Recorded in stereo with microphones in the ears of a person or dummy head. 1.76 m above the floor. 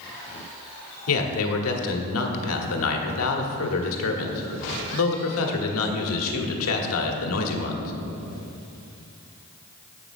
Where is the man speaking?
80° left, 1.2 m.